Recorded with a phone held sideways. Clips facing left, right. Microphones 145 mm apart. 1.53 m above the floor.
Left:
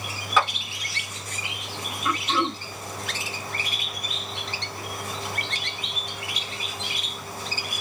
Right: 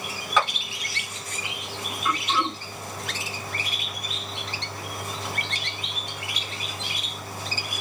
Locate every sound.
0.4 s a clap: 5° left (ahead or behind), 1.7 m
2.0 s throat clearing: 20° left (ahead or behind), 2 m